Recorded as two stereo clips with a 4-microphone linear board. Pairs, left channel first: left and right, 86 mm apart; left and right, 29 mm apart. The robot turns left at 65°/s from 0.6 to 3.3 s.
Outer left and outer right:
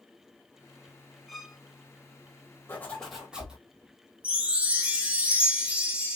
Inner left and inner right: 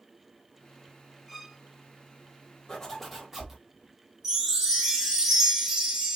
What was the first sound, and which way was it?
A violin, centre (ahead or behind).